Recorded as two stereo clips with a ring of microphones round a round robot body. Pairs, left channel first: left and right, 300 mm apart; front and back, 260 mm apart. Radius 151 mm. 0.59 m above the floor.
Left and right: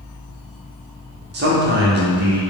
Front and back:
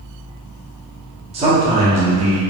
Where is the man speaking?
125° right, 0.9 m.